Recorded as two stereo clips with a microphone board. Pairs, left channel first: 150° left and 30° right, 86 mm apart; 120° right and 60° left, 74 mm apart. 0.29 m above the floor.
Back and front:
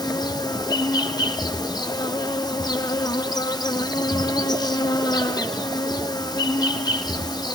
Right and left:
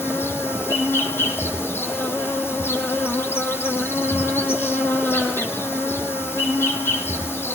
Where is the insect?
175° right, 1.8 m.